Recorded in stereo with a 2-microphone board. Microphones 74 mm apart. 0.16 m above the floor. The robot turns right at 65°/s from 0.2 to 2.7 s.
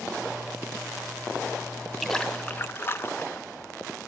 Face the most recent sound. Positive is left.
turn(degrees=45)